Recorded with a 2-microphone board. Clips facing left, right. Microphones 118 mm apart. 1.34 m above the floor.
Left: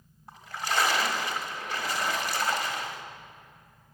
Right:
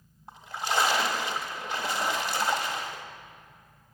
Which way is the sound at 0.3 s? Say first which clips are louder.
Right 1 dB; 25° right (ahead or behind).